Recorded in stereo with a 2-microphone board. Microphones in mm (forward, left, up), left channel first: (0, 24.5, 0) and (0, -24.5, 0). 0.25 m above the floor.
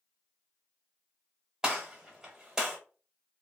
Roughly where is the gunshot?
Centre.